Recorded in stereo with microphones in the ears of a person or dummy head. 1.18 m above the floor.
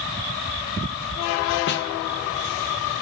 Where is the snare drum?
50° left (ahead or behind), 0.7 m.